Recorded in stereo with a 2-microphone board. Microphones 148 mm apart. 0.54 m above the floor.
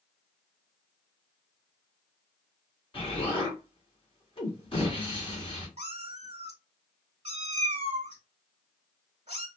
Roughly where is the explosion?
Left.